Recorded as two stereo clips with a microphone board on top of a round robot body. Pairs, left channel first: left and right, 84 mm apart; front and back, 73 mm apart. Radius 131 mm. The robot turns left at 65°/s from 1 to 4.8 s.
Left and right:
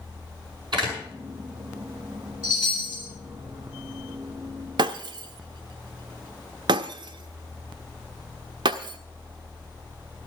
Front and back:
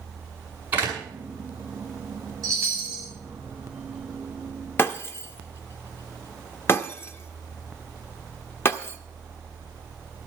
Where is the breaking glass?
55° right, 0.6 m.